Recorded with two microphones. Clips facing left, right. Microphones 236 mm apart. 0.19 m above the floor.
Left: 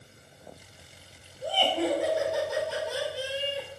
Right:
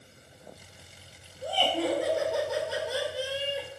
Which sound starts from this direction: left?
Laughter, at 1.4 s.